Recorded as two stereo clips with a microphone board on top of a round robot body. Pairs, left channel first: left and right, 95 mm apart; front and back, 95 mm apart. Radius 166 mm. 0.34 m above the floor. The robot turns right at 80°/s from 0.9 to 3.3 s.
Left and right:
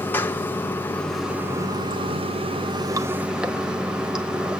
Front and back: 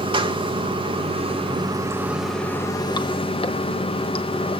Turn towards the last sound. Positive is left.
turn(degrees=-10)